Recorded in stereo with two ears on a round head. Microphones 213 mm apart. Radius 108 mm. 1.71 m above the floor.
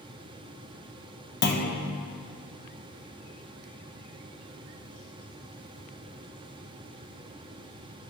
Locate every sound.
1.4 s a clunk: 45° left (ahead or behind), 1.1 m